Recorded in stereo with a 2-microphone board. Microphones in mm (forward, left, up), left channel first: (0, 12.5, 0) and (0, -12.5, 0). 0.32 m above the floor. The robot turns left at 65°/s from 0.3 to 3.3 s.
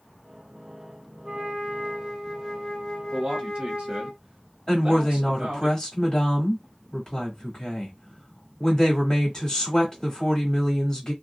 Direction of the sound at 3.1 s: 35° right (ahead or behind).